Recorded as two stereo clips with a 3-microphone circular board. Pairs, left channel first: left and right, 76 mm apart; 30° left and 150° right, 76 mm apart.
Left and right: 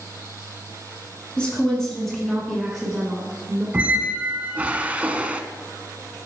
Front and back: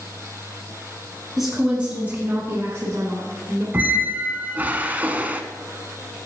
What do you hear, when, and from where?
1.4 s a woman speaking: 130° left, 1.6 m; by 3.6 s 165° right, 2.5 m
3.7 s a squeak: 125° right, 0.5 m